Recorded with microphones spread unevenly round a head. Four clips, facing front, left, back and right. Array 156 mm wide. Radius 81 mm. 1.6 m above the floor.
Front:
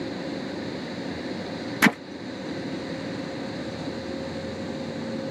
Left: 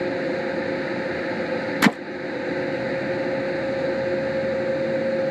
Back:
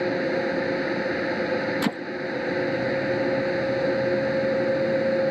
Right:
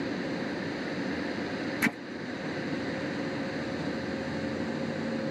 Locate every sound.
0.0 s a fan: 140° left
1.8 s hammering: 75° left